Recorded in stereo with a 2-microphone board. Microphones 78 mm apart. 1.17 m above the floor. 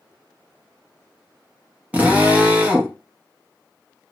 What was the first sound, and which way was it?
A drill, 20° right (ahead or behind).